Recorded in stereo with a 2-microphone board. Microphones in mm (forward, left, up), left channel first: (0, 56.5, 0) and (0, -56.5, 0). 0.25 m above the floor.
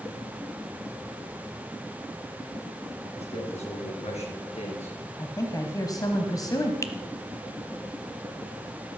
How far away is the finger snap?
About 1.1 m.